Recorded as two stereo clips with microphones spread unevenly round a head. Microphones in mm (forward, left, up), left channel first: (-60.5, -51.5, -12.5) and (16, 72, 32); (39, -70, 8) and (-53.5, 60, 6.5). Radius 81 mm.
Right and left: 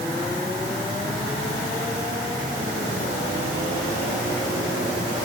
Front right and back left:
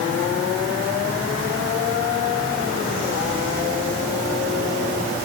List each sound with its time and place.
Only background noise.